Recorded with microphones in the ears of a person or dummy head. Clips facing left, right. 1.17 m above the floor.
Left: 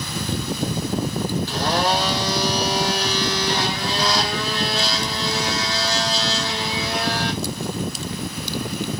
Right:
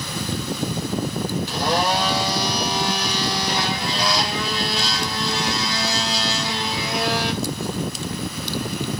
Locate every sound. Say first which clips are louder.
1.5 s a blender: right 1 dB; 15° right (ahead or behind), 1.1 m